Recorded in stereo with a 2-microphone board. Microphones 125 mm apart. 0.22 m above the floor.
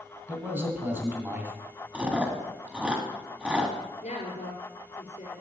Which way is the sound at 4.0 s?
75° left (ahead or behind).